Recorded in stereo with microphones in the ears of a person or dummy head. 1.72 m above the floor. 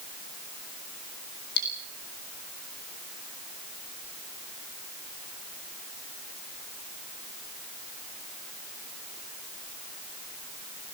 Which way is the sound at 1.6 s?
60° left (ahead or behind).